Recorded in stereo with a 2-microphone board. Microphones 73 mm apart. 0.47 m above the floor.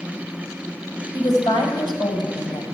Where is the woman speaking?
70° left (ahead or behind), 3 m.